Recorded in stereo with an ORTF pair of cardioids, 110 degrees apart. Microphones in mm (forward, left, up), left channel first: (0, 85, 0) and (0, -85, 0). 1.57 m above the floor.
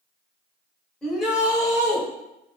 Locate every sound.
1.0 s a shout: 5° left, 1.1 m; by 2.0 s 25° right, 1.2 m